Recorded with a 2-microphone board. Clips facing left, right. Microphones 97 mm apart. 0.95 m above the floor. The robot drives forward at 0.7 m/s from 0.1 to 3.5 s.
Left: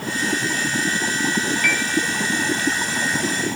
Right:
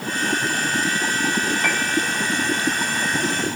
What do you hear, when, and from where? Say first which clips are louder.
1.6 s a piano: even; 30° right (ahead or behind), 5 m